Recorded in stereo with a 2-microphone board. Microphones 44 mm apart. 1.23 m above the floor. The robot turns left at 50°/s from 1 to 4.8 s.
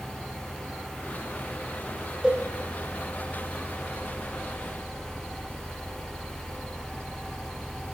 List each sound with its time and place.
2.2 s a cowbell: 5° right (ahead or behind), 2.5 m; by 2.4 s 5° left (ahead or behind), 2.5 m